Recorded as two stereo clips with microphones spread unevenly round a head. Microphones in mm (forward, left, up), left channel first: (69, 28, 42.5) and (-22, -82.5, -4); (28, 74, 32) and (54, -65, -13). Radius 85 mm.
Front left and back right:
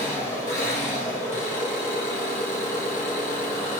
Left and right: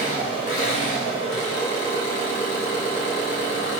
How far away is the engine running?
About 1.7 m.